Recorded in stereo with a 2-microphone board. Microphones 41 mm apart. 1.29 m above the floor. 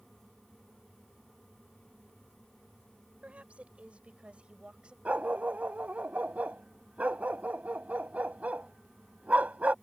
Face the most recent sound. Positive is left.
turn(degrees=-40)  # may be behind; listen again after turning